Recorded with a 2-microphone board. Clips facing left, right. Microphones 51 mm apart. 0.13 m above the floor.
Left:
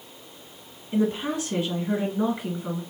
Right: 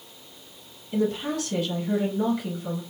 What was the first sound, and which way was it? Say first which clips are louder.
A woman speaking: left 1 dB; 25° left (ahead or behind).